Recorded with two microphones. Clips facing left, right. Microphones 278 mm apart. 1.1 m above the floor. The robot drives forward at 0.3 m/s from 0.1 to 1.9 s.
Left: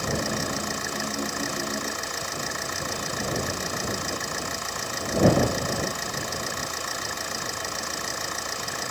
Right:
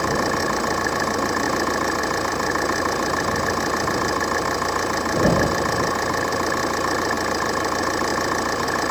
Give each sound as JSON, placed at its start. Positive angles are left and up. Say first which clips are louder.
{"t": 0.0, "sound": "an engine running", "louder": "right 6 dB", "side_deg": -70}